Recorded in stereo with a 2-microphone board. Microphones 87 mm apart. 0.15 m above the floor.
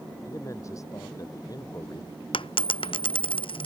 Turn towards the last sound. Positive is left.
turn(degrees=85)